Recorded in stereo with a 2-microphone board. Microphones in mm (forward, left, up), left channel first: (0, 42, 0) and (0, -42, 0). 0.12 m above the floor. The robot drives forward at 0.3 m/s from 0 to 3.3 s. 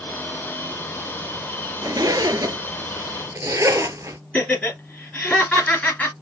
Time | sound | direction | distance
1.8 | a zipper | 55° right (ahead or behind) | 0.6 m
4.3 | laughter | 20° left (ahead or behind) | 1.8 m